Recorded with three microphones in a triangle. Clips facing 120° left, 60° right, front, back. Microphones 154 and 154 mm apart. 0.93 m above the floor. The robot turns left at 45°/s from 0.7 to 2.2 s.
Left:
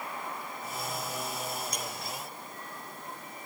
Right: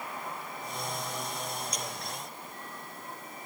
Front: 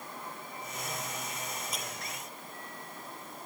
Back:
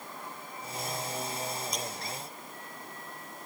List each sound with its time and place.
1.7 s breaking glass: 90° left; by 1.9 s 80° left